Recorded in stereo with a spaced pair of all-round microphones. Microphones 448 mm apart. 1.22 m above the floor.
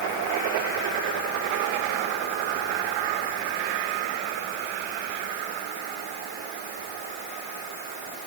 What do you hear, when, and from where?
Only background noise.